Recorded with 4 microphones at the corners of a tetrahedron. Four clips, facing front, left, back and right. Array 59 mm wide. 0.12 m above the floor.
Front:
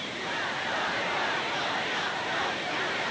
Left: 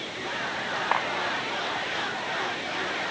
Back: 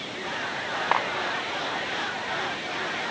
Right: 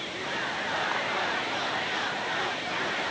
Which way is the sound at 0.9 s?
155° left.